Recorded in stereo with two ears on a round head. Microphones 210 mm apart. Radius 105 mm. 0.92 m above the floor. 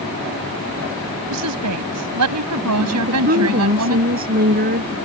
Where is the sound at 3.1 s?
40° right (ahead or behind).